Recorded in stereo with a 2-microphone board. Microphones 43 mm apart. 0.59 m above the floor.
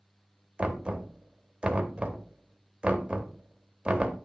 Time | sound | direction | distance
0.6 | knocking | 25° right (ahead or behind) | 0.9 m